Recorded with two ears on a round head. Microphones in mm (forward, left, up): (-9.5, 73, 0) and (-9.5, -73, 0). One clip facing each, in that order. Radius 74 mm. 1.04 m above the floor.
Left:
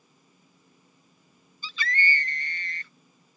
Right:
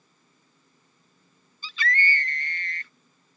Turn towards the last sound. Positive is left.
turn(degrees=85)